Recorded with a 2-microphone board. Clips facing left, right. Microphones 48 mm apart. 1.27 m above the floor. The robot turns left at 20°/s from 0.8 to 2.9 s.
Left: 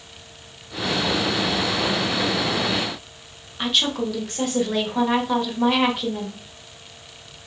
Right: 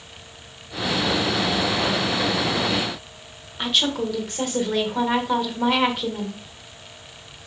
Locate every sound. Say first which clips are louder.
3.6 s a woman speaking: even; centre (ahead or behind), 1.4 m